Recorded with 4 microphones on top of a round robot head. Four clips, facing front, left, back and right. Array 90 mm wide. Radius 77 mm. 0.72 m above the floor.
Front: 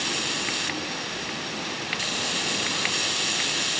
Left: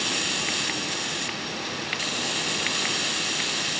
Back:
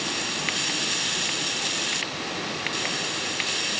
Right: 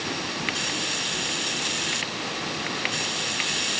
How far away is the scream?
I don't hear a scream.